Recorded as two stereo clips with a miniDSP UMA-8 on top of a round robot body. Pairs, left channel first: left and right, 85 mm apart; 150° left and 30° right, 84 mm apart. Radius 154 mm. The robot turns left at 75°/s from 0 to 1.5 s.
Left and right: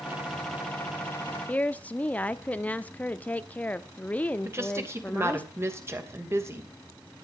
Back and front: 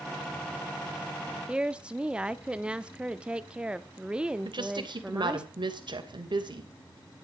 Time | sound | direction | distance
1.5 | a woman speaking | 35° left | 0.9 m
4.5 | a woman speaking | 35° right | 3 m